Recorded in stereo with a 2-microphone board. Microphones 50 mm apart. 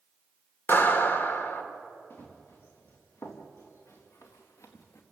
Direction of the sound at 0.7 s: 45° left (ahead or behind).